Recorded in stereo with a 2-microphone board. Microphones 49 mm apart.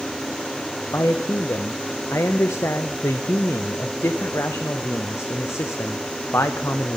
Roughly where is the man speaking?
Left.